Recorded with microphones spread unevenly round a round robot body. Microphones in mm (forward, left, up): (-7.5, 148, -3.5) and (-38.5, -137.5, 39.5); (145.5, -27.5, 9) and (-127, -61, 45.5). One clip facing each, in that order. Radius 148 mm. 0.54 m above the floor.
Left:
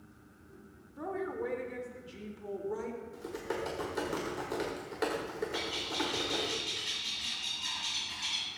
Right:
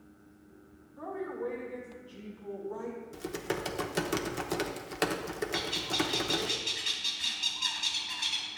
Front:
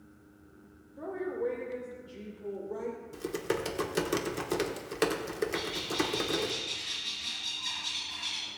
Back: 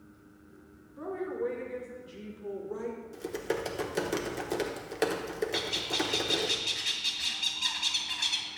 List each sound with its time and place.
1.0 s a woman speaking: 105° left, 1.9 m
3.1 s typing on a keyboard: 60° right, 1.0 m
5.5 s a bird: 165° right, 2 m